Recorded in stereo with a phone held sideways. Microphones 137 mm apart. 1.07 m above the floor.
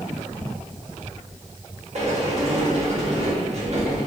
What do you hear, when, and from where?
1.9 s a sliding door: 55° right (ahead or behind), 0.8 m